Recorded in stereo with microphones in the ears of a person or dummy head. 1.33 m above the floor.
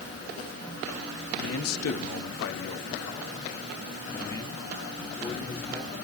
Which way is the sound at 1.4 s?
75° left (ahead or behind).